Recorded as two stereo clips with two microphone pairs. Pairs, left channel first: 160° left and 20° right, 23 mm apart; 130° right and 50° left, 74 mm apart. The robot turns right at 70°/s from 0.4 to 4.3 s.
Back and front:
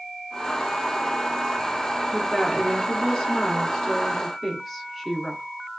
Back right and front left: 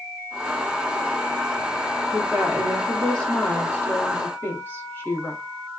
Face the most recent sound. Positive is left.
turn(degrees=-110)